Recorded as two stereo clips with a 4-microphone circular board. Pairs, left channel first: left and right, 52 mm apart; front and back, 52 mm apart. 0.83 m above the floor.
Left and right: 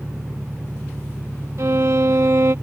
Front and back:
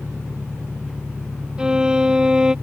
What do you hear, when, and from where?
0.0 s an engine running: 130° right
1.6 s a violin: 110° right